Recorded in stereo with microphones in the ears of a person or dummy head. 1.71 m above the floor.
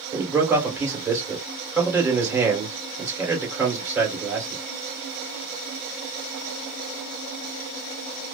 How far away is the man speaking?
About 2.0 m.